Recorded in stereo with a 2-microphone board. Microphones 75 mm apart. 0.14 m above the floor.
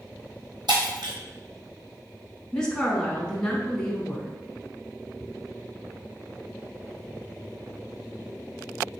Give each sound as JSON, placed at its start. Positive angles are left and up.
{"t": 0.7, "sound": "breaking glass", "side_deg": -80, "distance_m": 1.5}
{"t": 2.5, "sound": "a woman speaking", "side_deg": 10, "distance_m": 1.1}
{"t": 5.2, "sound": "ticking", "side_deg": -5, "distance_m": 0.8}